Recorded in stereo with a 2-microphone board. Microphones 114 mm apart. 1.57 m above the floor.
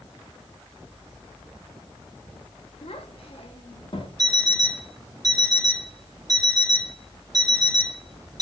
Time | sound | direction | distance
2.8 | a child speaking | 65° left (ahead or behind) | 1.9 m
4.2 | an alarm clock | 35° right (ahead or behind) | 4 m